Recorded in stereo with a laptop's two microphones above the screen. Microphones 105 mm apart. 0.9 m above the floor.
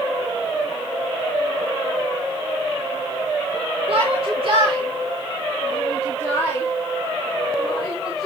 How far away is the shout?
About 2.5 m.